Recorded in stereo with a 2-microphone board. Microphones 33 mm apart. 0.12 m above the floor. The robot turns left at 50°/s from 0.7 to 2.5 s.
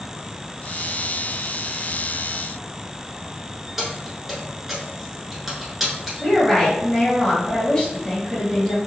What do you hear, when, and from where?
3.8 s keys jangling: 5° right (ahead or behind), 1.1 m
6.2 s a woman speaking: 20° left (ahead or behind), 1.8 m